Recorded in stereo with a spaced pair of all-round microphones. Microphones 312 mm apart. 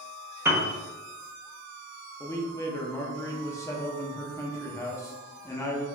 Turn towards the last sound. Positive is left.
turn(degrees=10)  # may be behind; listen again after turning